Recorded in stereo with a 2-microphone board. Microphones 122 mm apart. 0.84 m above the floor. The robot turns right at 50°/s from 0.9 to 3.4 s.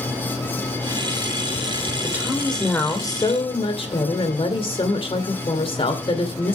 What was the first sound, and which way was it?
A woman speaking, 20° right.